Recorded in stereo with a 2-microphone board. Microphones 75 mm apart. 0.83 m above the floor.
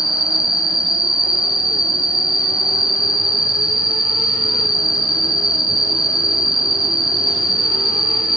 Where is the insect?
5° right (ahead or behind), 2 m.